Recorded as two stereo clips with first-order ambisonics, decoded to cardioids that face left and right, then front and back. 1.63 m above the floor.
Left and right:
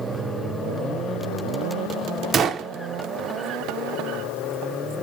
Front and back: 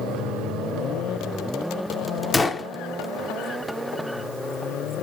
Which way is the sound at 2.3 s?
60° right.